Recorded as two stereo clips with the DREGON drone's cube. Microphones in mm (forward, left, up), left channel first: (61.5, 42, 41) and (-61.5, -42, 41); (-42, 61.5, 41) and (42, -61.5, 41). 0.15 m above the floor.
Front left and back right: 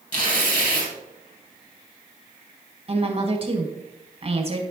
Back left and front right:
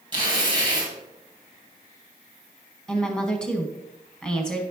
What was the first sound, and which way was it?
Tearing paper, 5° left.